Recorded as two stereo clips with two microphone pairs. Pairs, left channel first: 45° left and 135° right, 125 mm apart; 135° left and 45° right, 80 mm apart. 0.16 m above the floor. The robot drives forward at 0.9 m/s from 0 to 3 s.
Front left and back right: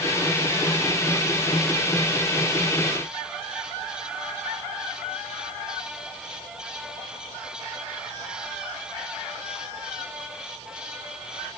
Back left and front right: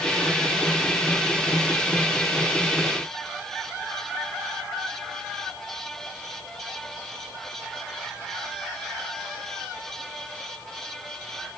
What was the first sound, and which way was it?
Only background noise.